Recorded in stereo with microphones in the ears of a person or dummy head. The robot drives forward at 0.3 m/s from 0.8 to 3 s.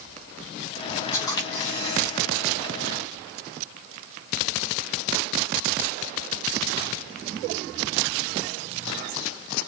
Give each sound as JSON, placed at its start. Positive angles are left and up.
{"t": 1.1, "sound": "a camera shutter", "side_deg": 20, "distance_m": 4.0}